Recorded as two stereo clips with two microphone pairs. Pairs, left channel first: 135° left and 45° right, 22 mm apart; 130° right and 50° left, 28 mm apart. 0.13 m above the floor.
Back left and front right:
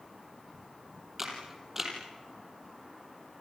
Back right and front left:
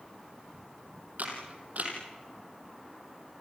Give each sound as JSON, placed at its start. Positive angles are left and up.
{"t": 1.2, "sound": "a camera shutter", "azimuth_deg": 30, "distance_m": 4.5}